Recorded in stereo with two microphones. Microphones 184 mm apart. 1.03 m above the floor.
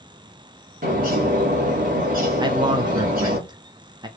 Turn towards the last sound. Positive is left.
turn(degrees=-25)  # may be behind; listen again after turning